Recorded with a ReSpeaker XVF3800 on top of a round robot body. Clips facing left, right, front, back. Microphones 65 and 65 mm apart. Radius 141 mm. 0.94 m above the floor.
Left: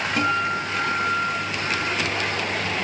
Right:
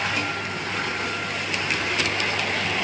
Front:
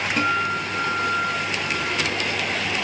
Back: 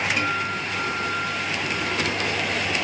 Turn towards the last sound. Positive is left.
turn(degrees=55)